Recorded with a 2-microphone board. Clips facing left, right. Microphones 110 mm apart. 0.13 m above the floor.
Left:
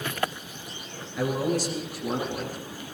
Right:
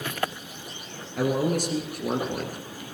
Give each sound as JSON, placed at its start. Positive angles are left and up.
{"t": 1.2, "sound": "a man speaking", "side_deg": -55, "distance_m": 3.0}